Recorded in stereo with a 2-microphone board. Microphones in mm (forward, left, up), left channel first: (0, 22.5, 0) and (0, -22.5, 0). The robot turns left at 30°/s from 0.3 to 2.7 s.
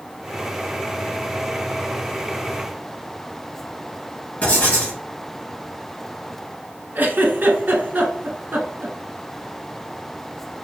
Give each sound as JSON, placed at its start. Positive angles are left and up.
{"t": 4.4, "sound": "writing", "side_deg": 30, "distance_m": 1.4}
{"t": 7.0, "sound": "a giggle", "side_deg": -45, "distance_m": 0.6}